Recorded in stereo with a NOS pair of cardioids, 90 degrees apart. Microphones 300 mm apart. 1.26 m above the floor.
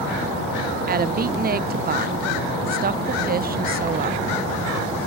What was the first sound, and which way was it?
A woman speaking, 30° right.